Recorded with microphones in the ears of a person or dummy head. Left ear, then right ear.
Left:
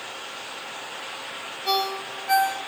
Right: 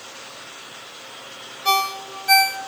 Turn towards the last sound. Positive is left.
turn(degrees=-45)  # may be behind; listen again after turning